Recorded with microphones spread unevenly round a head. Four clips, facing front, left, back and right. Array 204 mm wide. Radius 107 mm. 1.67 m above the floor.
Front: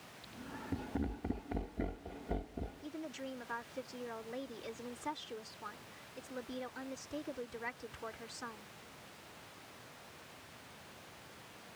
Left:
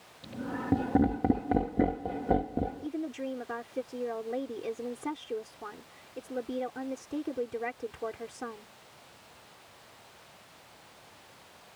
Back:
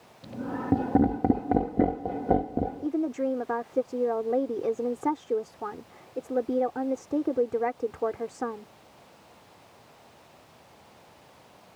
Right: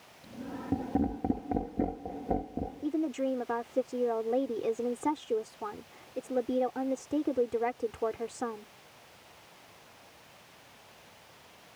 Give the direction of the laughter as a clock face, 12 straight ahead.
6 o'clock.